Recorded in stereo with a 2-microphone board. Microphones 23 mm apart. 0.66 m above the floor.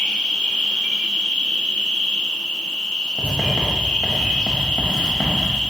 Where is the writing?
50° left (ahead or behind), 0.7 m.